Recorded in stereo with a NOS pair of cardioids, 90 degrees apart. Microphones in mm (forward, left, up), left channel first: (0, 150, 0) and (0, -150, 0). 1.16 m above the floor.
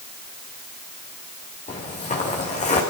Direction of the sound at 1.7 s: 25° left.